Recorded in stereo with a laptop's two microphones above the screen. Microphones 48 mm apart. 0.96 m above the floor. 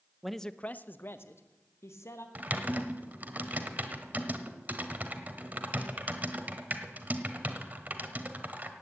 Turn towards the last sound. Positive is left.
turn(degrees=-35)  # may be behind; listen again after turning